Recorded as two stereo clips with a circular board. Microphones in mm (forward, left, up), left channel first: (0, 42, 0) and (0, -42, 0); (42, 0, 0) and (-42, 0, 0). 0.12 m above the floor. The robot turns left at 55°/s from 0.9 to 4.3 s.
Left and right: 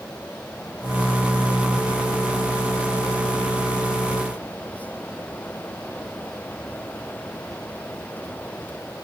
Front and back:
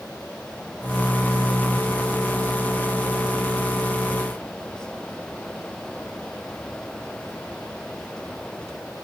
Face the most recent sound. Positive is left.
No sound to turn to.